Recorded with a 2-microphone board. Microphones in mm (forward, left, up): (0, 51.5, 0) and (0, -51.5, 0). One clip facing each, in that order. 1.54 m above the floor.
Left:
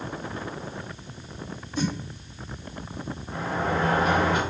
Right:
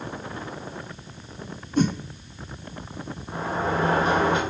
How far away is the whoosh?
About 0.5 m.